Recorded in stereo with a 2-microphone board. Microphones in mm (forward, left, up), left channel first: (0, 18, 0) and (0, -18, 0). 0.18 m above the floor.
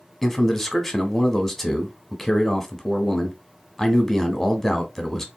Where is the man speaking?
5° left (ahead or behind), 1.0 m.